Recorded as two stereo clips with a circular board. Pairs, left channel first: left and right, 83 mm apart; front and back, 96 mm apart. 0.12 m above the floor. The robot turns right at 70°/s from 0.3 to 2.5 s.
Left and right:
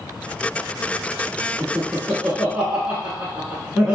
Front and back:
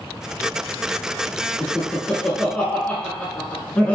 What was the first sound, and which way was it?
Laughter, 105° right.